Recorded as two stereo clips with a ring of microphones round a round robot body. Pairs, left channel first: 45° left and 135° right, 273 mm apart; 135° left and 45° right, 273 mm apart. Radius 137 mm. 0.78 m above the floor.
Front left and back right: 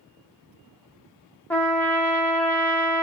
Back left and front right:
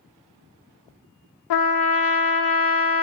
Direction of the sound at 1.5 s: 130° left.